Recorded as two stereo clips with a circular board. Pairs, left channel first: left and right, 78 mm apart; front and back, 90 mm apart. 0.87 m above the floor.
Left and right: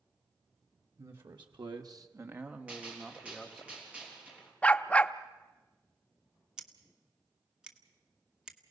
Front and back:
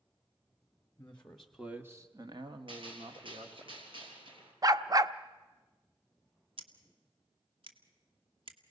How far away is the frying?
I don't hear frying.